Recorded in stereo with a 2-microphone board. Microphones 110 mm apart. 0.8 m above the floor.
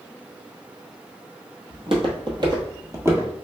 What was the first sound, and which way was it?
Footsteps, 60° right (ahead or behind).